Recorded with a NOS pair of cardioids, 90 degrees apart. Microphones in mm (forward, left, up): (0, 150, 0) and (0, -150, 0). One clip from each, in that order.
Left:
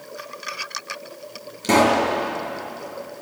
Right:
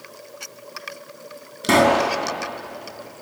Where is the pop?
35° right, 4.5 m.